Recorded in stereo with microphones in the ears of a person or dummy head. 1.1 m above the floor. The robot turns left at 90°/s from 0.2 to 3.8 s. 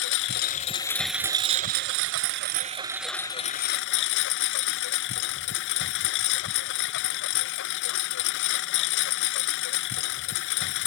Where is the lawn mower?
80° left; by 10.9 s 115° left.